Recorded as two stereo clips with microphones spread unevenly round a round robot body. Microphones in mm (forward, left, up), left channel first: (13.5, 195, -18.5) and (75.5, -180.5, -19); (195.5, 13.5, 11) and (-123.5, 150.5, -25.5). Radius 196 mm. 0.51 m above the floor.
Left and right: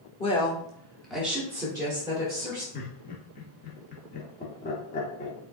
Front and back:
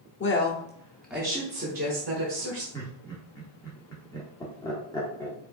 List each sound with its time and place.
0.2 s a woman speaking: 30° left, 1.2 m; by 2.6 s 155° right, 1.9 m
2.7 s laughter: 60° left, 1.2 m